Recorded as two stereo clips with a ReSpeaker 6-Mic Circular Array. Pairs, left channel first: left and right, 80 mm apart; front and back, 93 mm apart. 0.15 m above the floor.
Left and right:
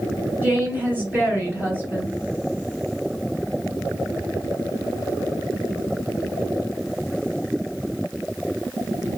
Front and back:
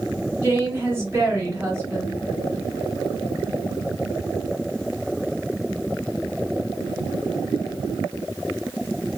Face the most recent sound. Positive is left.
turn(degrees=-140)